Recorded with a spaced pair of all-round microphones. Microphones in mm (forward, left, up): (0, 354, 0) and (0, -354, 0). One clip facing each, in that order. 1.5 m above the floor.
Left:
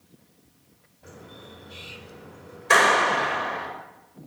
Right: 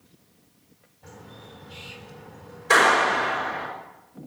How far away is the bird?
About 3.5 m.